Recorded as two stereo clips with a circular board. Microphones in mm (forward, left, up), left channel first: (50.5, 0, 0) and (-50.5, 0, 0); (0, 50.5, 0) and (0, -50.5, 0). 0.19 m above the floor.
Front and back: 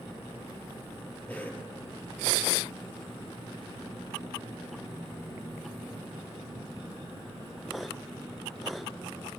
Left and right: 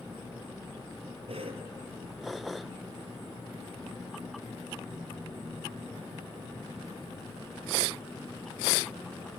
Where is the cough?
75° right, 3.5 m.